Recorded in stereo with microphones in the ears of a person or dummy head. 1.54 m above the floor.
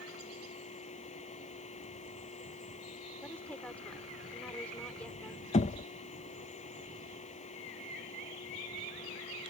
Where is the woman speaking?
5° left (ahead or behind).